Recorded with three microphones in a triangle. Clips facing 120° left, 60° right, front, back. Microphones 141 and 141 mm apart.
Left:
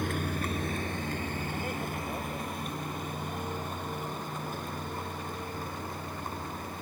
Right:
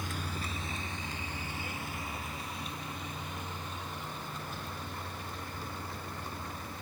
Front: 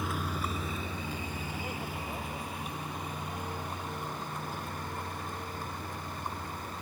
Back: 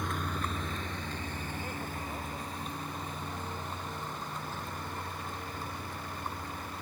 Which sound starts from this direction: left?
A vehicle, at 0.0 s.